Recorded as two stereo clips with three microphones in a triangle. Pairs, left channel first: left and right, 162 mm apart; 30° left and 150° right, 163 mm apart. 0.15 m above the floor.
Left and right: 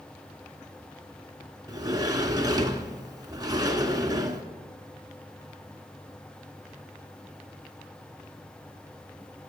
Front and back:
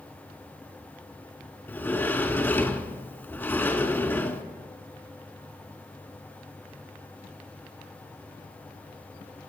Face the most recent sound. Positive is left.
turn(degrees=-40)